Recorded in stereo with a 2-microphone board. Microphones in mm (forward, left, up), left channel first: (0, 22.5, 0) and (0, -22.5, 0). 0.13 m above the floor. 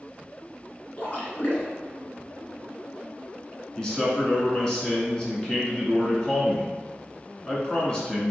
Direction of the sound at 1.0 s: 30° left (ahead or behind).